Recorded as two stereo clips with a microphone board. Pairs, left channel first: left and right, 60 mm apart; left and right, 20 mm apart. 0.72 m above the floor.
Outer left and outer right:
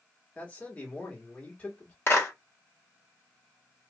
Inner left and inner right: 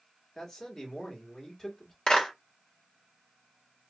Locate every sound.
0.3 s a man speaking: 25° left (ahead or behind), 1.6 m
2.1 s a clap: 45° left (ahead or behind), 1.4 m